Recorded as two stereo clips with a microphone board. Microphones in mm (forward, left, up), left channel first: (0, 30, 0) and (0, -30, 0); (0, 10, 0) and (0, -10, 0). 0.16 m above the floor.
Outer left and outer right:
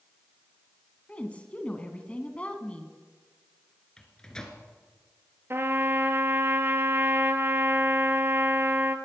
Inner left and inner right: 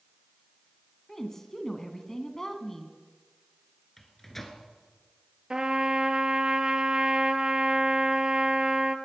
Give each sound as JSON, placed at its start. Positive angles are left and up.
{"t": 1.1, "sound": "a woman speaking", "side_deg": 20, "distance_m": 1.5}
{"t": 4.0, "sound": "a microwave", "side_deg": 15, "distance_m": 1.9}
{"t": 5.5, "sound": "a trumpet", "side_deg": -40, "distance_m": 1.1}